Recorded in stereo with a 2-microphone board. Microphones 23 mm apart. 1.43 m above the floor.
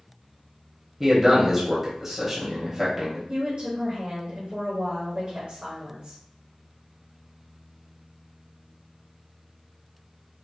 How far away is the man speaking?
About 1.0 m.